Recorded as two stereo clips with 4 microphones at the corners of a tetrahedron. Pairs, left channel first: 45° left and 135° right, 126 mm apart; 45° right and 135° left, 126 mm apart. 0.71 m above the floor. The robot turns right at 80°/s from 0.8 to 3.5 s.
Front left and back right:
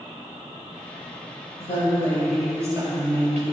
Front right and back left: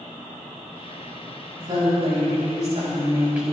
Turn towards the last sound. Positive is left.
turn(degrees=-135)